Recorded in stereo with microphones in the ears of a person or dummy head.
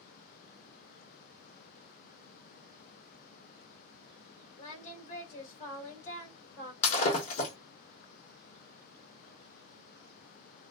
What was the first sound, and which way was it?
Singing, 40° left (ahead or behind).